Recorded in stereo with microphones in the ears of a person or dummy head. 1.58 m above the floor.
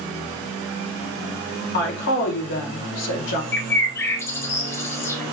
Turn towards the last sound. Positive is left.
turn(degrees=15)  # may be behind; listen again after turning